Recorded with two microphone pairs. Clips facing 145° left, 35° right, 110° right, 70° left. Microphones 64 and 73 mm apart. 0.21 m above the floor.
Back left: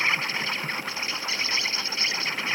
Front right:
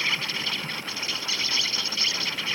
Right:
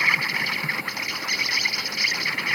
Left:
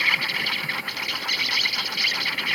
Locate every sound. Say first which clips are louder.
0.0 s an insect: back left 3 dB, right 1 dB; 170° right